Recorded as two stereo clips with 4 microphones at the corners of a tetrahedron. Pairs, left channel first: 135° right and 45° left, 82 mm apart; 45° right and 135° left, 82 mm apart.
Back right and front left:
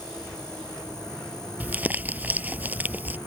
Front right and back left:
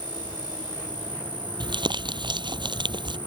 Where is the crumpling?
115° left.